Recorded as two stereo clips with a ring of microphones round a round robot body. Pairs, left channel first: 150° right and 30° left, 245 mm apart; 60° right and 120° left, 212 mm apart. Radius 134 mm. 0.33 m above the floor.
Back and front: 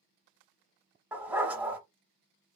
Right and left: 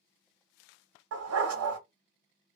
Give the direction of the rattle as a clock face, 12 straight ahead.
I don't hear a rattle.